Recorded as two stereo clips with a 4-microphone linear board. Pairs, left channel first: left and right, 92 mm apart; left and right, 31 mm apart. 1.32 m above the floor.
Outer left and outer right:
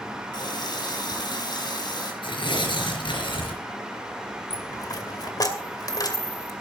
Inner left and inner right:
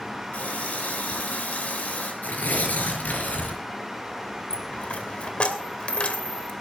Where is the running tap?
50° left (ahead or behind), 3.5 m.